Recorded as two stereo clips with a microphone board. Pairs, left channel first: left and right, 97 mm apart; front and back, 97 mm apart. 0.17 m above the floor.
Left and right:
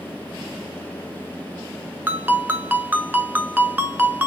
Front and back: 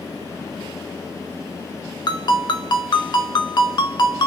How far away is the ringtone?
About 0.8 m.